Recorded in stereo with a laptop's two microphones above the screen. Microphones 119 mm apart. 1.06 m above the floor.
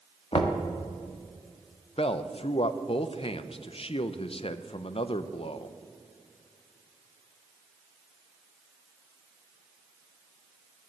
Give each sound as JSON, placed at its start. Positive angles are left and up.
{"t": 0.3, "sound": "knocking", "side_deg": 50, "distance_m": 1.2}
{"t": 2.0, "sound": "a man speaking", "side_deg": 50, "distance_m": 0.6}